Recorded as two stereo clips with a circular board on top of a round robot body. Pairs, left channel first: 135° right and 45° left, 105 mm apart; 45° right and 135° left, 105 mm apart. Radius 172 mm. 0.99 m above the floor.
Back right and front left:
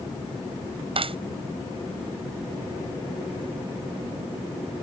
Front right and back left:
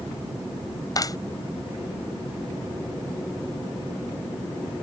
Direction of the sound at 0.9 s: 10° left.